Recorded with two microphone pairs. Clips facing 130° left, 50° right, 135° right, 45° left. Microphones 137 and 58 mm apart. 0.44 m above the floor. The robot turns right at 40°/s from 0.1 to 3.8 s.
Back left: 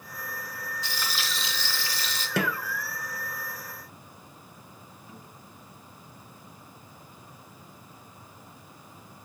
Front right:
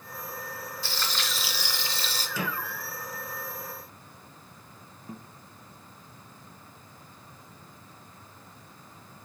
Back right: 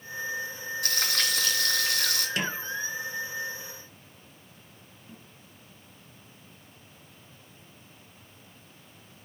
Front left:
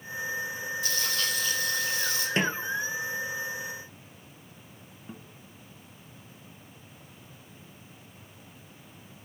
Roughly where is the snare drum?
Left.